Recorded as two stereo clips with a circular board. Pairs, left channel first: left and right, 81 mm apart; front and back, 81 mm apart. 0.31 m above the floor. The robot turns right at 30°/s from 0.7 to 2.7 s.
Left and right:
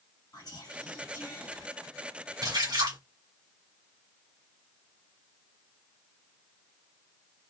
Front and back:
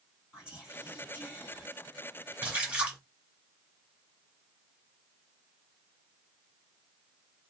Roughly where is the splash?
Behind right.